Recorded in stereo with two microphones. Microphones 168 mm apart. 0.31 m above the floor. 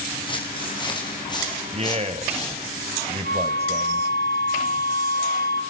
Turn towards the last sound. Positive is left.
turn(degrees=80)